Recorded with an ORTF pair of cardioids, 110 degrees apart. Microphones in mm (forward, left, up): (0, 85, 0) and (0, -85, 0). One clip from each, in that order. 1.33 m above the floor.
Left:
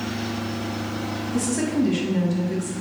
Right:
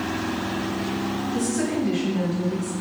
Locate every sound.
1.3 s a woman speaking: 65° left, 1.3 m